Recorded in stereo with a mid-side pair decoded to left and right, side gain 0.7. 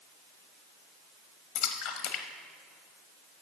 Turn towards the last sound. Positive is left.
turn(degrees=65)